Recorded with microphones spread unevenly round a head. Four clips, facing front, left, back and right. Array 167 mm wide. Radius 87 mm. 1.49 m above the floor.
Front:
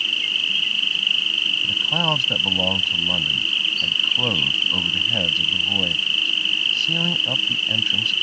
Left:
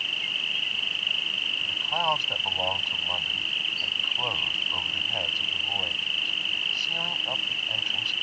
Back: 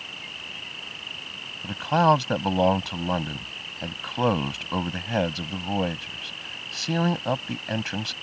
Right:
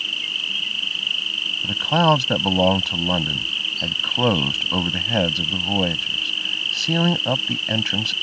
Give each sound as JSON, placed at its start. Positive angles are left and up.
{"t": 0.0, "sound": "an insect", "azimuth_deg": -25}
{"t": 1.6, "sound": "a man speaking", "azimuth_deg": -105}